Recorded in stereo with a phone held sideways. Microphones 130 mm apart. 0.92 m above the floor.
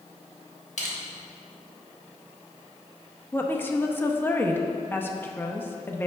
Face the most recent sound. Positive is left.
turn(degrees=15)  # may be behind; listen again after turning